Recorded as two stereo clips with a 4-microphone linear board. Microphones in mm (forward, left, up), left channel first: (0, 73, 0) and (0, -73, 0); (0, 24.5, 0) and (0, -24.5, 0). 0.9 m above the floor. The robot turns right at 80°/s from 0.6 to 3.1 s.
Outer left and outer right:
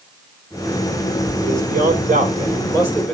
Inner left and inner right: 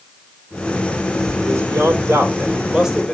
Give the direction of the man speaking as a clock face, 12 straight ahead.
4 o'clock.